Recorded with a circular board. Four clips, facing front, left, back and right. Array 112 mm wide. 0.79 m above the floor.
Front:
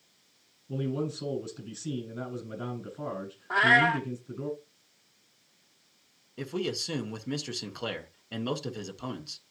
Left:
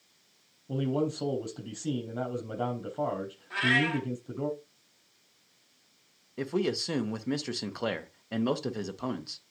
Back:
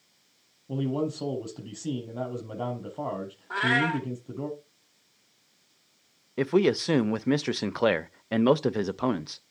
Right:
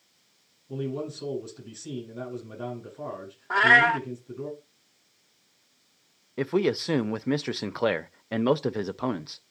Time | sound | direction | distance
0.7 | a man speaking | 135° left | 5 m
3.5 | a cat meowing | 65° right | 0.8 m
6.4 | a man speaking | 155° right | 0.5 m